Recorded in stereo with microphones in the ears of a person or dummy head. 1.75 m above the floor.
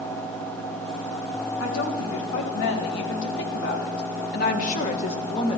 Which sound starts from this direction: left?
A woman speaking, at 1.6 s.